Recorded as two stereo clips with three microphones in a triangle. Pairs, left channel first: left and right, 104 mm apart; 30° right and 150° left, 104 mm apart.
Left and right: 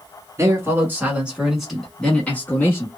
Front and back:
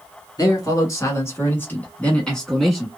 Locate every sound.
0.4 s a man speaking: 45° right, 1.5 m; by 2.9 s 65° left, 1.3 m